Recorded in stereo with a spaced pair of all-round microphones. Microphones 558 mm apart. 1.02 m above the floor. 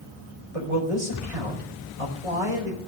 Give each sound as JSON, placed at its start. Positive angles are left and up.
{"t": 0.5, "sound": "a man speaking", "side_deg": -80, "distance_m": 5.0}